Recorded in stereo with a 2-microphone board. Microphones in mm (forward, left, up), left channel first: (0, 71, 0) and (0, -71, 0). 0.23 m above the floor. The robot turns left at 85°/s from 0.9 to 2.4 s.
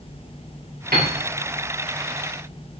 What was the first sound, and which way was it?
A piano, 90° right.